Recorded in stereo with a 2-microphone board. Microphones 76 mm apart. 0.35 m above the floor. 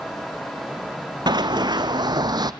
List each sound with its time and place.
1.3 s running footsteps: 70° right (ahead or behind), 1.2 m; by 2.5 s 65° right (ahead or behind), 0.7 m